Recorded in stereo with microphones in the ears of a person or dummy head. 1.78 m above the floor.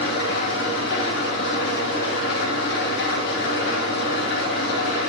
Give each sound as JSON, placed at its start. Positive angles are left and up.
{"t": 0.0, "sound": "an engine running", "side_deg": 65, "distance_m": 1.7}